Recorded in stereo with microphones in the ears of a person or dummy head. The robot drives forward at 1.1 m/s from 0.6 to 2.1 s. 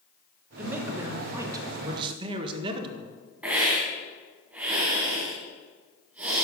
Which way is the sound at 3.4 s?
5° right (ahead or behind).